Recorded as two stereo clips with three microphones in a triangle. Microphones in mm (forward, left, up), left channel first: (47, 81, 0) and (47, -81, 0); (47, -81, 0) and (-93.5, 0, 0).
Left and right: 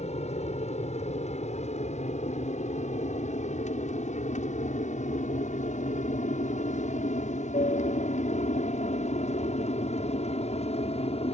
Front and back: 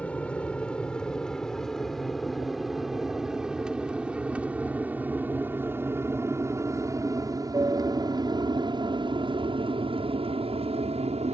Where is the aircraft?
50° left; by 11.4 s 120° left.